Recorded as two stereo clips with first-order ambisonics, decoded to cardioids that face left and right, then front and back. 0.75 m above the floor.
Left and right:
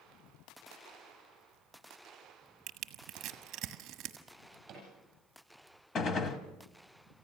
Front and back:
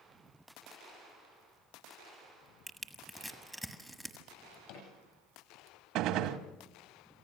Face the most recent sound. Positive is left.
turn(degrees=150)